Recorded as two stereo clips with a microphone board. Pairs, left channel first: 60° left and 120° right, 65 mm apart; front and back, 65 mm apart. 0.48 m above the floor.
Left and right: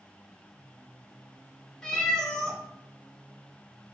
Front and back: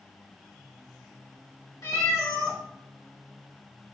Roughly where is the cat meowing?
Ahead.